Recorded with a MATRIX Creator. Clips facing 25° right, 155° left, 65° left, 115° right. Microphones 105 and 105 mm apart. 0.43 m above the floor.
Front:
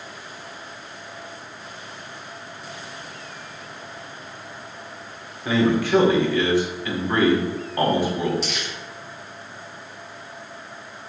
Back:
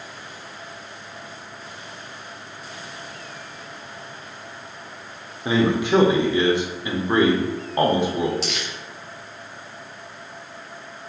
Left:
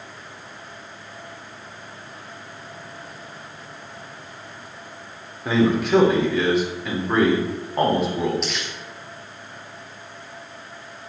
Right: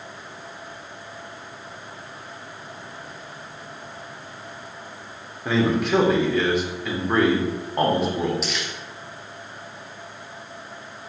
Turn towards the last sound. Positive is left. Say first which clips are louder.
# back 1 dB, even
turn(degrees=160)